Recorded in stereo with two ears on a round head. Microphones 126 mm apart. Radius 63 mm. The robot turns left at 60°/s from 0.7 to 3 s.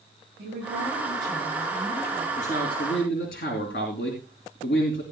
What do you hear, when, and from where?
0.4 s a woman speaking: 115° right, 9.5 m; by 2.3 s 150° left, 9.5 m
2.4 s a man speaking: 120° left, 3 m; by 5.0 s 80° left, 3 m